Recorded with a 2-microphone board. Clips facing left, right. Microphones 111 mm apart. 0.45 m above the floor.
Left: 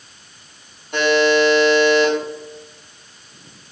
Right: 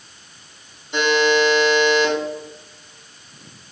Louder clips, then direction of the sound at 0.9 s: Left 2 dB; 55° left (ahead or behind).